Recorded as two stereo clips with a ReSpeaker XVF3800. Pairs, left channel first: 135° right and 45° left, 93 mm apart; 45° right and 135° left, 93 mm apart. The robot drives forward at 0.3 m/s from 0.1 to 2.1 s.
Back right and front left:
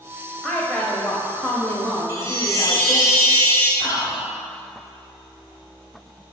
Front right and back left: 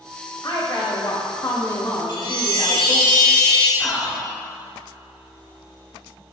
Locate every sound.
0.4 s a woman speaking: 55° right, 1.3 m; by 3.1 s 80° right, 1.2 m
2.1 s a chime: 85° right, 1.1 m
3.8 s whispering: 110° right, 1.2 m